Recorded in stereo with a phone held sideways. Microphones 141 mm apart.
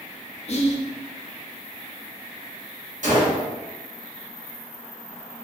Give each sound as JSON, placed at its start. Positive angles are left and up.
{"t": 0.5, "sound": "whispering", "side_deg": 50, "distance_m": 0.6}
{"t": 3.0, "sound": "a gunshot", "side_deg": -65, "distance_m": 1.3}